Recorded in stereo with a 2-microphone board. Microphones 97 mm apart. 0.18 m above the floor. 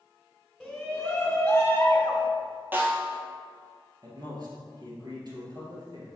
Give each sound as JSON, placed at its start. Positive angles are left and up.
{"t": 0.6, "sound": "a shout", "side_deg": -5, "distance_m": 1.4}
{"t": 2.7, "sound": "a snare drum", "side_deg": -20, "distance_m": 1.3}
{"t": 4.0, "sound": "a man speaking", "side_deg": -50, "distance_m": 2.5}